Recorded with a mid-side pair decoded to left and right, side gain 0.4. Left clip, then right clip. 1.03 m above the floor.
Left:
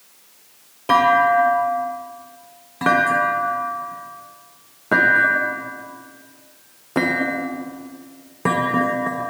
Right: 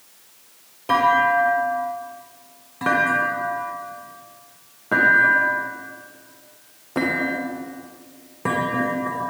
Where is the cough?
No cough in this recording.